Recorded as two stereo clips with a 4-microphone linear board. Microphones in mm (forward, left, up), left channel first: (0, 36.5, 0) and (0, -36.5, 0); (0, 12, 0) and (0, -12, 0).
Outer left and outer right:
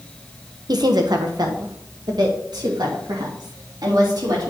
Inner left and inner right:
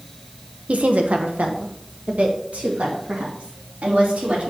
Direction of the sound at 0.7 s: 70° right (ahead or behind).